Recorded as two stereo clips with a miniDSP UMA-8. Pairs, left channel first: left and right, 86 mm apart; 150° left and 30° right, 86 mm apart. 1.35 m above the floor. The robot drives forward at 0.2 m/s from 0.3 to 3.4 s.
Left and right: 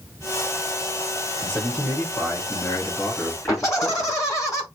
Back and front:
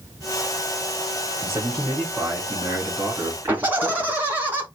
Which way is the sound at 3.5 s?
40° left.